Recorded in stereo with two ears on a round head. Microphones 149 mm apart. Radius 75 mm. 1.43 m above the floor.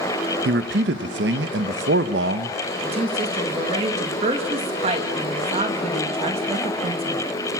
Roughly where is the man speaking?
Right.